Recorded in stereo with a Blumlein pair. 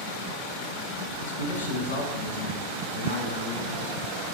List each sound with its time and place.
1.2 s a man speaking: 65° left, 0.8 m